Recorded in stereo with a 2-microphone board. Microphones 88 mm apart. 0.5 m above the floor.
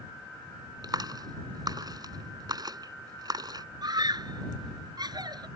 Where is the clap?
50° right (ahead or behind).